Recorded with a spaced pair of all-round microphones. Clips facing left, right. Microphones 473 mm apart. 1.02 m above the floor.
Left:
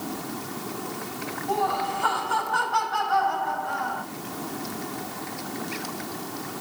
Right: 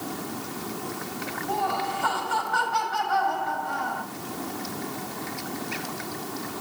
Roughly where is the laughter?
Right.